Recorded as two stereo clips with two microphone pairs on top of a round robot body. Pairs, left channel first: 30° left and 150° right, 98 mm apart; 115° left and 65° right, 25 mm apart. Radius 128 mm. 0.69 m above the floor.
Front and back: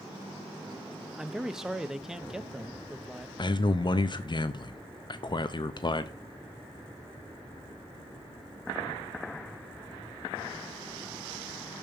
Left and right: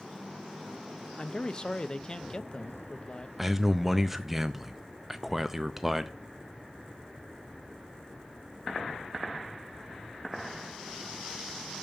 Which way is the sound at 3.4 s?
20° left.